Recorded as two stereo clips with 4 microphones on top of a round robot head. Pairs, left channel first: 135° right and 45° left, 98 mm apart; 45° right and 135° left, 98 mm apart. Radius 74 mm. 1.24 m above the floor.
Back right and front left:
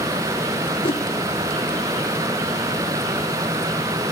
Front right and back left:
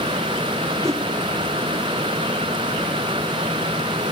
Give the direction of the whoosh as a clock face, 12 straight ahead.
6 o'clock.